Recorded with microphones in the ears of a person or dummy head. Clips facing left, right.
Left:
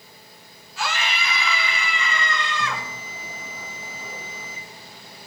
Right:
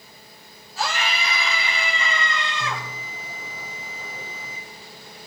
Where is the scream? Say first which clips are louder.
Right 1 dB; 35° right (ahead or behind), 4 m; by 2.8 s 20° right (ahead or behind), 6 m.